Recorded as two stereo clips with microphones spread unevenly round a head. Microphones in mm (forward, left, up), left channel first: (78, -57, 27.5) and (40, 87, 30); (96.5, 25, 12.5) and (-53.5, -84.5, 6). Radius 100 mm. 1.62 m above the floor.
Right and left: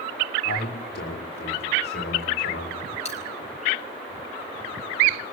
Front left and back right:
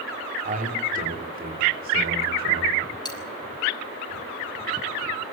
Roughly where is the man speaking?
Right.